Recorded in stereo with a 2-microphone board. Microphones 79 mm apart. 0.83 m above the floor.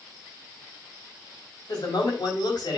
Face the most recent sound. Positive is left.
turn(degrees=60)  # may be behind; listen again after turning